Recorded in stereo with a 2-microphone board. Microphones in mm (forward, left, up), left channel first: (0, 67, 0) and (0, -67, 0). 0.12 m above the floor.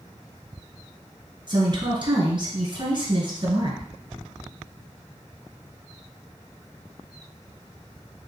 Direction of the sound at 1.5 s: 40° right (ahead or behind).